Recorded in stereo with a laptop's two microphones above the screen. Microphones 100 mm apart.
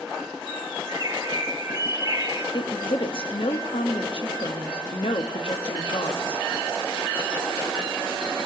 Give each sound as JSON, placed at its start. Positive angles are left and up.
{"t": 0.9, "sound": "a bird", "side_deg": -35, "distance_m": 1.5}
{"t": 2.5, "sound": "a woman speaking", "side_deg": 60, "distance_m": 1.2}